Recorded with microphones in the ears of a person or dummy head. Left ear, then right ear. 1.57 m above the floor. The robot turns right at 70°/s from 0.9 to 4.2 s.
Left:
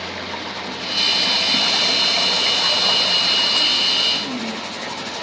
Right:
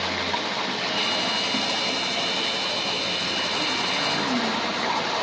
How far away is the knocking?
No knocking in this recording.